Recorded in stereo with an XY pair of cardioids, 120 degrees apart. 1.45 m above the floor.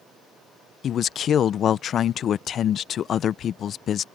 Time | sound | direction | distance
0.8 | a man speaking | 50° left | ?